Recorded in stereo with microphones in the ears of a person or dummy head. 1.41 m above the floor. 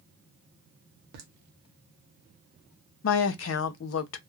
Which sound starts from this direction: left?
A woman speaking, at 3.0 s.